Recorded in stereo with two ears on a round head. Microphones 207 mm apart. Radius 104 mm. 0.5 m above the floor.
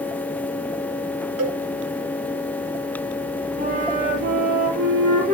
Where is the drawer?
No drawer in this recording.